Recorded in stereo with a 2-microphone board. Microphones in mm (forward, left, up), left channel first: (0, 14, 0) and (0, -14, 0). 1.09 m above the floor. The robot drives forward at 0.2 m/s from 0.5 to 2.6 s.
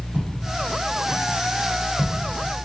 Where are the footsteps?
40° right (ahead or behind), 1.6 m; by 2.6 s 5° right (ahead or behind), 1.2 m.